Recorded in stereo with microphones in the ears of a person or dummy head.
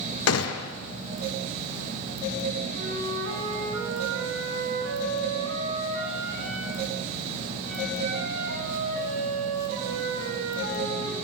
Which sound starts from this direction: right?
A flute, at 2.7 s.